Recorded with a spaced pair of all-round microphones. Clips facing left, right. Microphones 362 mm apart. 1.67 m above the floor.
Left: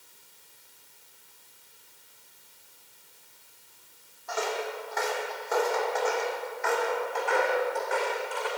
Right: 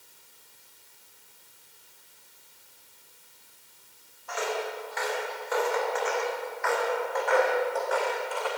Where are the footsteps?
55° left (ahead or behind), 3.5 m; by 8.5 s 30° left (ahead or behind), 5.5 m.